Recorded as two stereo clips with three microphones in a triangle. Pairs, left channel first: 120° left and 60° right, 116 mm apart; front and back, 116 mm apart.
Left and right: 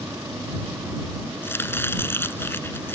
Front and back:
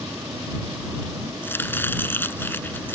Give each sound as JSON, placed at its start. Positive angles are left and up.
{"t": 1.4, "sound": "chopping", "azimuth_deg": 60}